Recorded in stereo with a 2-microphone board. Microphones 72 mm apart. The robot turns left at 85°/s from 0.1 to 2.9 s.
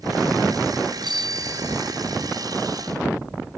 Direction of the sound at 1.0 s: 90° right.